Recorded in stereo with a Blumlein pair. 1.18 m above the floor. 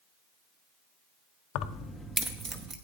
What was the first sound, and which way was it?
Keys jangling, 40° left.